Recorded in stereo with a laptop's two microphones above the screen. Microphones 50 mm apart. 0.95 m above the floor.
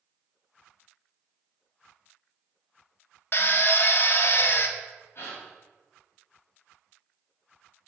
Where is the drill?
50° left (ahead or behind), 0.6 m.